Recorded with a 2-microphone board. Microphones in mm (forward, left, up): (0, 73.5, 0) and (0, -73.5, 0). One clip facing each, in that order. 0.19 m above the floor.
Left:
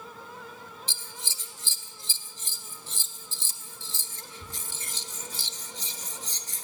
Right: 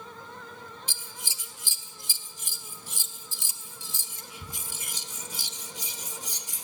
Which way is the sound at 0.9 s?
15° right (ahead or behind).